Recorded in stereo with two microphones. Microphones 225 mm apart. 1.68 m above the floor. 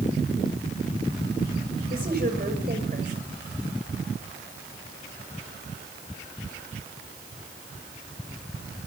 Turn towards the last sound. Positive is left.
turn(degrees=-40)  # may be behind; listen again after turning